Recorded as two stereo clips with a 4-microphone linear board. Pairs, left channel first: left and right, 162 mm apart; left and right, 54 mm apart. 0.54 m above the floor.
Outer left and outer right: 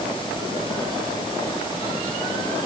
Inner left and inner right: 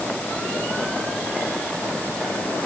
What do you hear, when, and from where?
Only background noise.